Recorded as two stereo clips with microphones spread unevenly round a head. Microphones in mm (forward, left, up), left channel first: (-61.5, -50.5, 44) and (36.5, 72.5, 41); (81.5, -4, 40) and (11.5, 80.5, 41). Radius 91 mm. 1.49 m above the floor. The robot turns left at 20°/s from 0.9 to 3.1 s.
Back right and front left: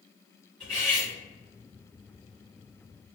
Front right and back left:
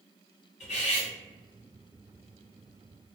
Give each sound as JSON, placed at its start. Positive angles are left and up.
{"t": 0.6, "sound": "cutlery clinking", "azimuth_deg": -45, "distance_m": 1.3}